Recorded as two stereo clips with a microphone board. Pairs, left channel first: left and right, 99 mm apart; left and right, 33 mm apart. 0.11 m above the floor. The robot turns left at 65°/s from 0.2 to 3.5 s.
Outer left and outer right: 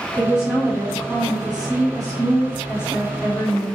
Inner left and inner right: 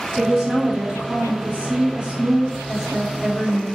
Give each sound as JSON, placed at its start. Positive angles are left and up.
{"t": 0.2, "sound": "a woman speaking", "azimuth_deg": 0, "distance_m": 1.6}